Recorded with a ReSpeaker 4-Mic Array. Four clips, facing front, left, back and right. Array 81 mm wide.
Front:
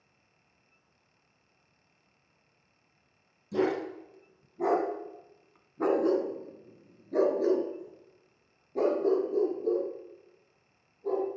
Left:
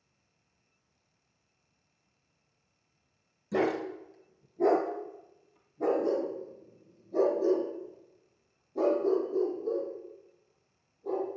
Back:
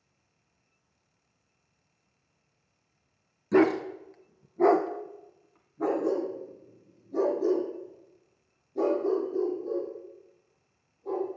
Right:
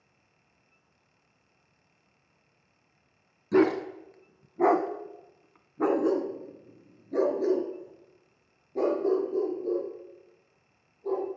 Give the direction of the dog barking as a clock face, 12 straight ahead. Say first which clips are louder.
Right 6 dB, back 6 dB; 5 o'clock.